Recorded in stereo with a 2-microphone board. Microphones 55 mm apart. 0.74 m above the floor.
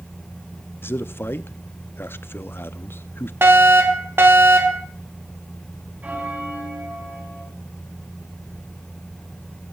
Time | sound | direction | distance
0.8 | a man speaking | 40° left (ahead or behind) | 0.7 m
3.4 | a fire alarm | 45° right (ahead or behind) | 2.5 m
6.0 | a bell | 25° right (ahead or behind) | 3.5 m